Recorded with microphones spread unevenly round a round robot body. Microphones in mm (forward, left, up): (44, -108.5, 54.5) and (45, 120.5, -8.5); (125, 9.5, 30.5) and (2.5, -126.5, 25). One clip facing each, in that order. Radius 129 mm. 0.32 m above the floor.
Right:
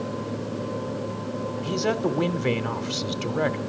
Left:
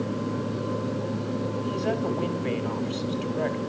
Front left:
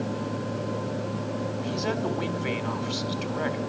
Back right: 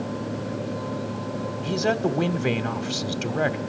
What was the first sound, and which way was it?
A man speaking, 130° right.